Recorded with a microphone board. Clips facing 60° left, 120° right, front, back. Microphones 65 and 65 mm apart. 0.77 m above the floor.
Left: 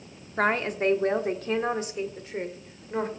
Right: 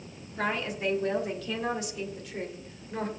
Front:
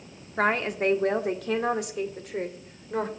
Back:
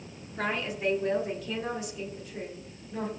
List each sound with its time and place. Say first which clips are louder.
0.4 s a woman speaking: left 6 dB, front 6 dB; 30° left, 1.4 m; by 3.1 s straight ahead, 2.5 m